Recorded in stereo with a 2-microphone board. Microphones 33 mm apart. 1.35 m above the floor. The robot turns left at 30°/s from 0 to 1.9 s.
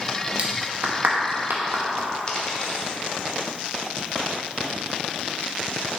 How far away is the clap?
About 1.1 m.